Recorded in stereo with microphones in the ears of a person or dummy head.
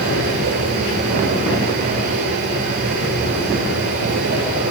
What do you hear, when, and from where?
0.0 s a machine running: 60° right (ahead or behind), 8 m